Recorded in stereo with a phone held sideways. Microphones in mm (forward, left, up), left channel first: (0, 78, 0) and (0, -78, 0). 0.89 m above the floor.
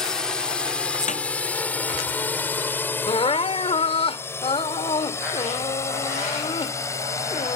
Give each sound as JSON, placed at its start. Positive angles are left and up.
{"t": 0.0, "sound": "a drone", "side_deg": 5}
{"t": 1.1, "sound": "a snare drum", "side_deg": 55}
{"t": 3.1, "sound": "crying", "side_deg": 40}